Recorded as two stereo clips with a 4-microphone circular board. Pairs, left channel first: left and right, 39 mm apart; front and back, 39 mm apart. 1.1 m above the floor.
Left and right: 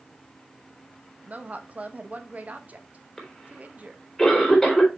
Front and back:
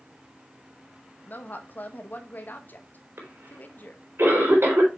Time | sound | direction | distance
1.2 | a woman speaking | 45° right | 1.1 m
3.2 | a cough | 165° left | 4 m